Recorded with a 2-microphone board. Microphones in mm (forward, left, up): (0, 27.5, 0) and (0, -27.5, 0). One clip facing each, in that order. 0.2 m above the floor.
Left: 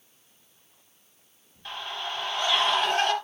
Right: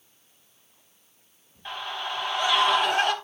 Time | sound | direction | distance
1.6 | a scream | 15° right (ahead or behind) | 4 m